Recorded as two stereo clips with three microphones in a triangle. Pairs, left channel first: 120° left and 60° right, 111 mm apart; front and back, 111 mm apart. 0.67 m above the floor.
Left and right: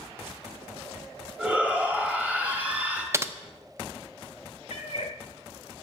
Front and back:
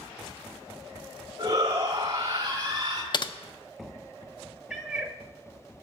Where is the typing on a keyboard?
5° right, 0.5 m.